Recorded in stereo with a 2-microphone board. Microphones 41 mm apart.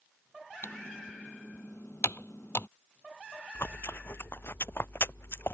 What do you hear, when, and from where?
0.6 s typing on a keyboard: 80° left
3.5 s chewing: 70° left (ahead or behind)